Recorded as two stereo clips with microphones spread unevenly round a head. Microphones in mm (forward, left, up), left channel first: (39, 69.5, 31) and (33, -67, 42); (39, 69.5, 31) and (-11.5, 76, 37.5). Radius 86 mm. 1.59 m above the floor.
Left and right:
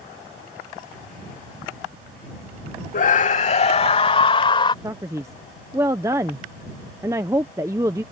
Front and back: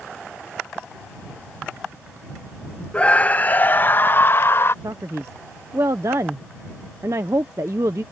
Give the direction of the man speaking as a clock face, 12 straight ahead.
5 o'clock.